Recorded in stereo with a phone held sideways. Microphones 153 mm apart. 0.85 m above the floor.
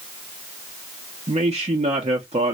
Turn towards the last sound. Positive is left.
turn(degrees=-45)  # may be behind; listen again after turning